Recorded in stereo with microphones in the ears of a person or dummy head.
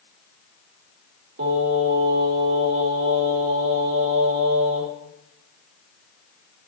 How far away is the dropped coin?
I don't hear a dropped coin.